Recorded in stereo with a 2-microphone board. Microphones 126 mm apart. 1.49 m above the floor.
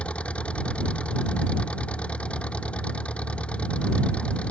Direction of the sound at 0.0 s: 10° left (ahead or behind).